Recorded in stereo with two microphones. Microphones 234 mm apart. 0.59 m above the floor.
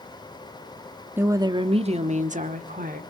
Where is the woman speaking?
10° right (ahead or behind), 0.7 m; by 3.0 s 35° right (ahead or behind), 1.6 m.